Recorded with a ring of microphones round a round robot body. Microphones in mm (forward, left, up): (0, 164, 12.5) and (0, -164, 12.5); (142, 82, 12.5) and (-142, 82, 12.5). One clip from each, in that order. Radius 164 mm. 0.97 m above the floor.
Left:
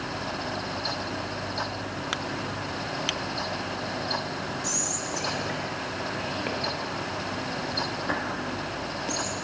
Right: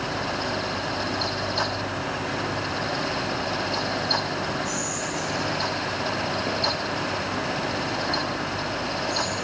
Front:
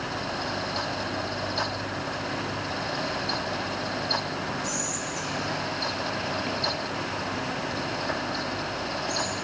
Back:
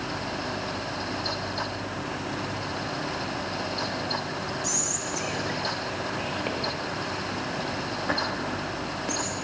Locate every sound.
4.6 s whispering: 120° left, 1.5 m